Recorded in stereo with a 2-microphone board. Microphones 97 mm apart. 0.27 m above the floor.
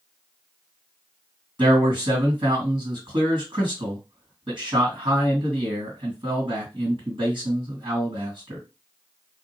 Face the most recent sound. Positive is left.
turn(degrees=-55)  # may be behind; listen again after turning